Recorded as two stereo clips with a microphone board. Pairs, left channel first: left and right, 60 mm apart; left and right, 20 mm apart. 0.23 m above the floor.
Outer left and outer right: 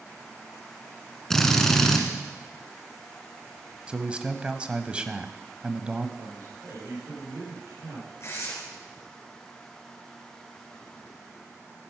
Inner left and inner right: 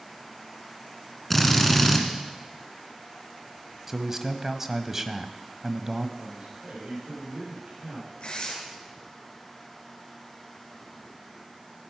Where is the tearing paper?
50° left (ahead or behind), 3.5 m.